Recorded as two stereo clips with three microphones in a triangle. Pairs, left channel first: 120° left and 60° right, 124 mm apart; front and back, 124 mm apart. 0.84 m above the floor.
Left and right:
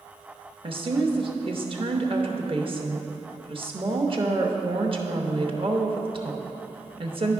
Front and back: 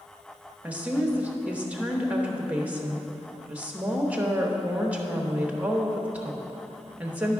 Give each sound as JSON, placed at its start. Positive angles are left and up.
{"t": 0.6, "sound": "a woman speaking", "azimuth_deg": -105, "distance_m": 0.9}